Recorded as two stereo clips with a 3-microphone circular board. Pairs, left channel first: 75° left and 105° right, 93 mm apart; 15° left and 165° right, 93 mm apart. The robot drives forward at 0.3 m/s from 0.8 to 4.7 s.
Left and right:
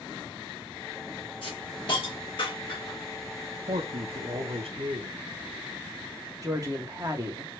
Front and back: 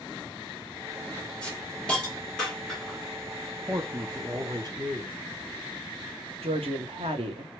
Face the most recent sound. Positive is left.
turn(degrees=-155)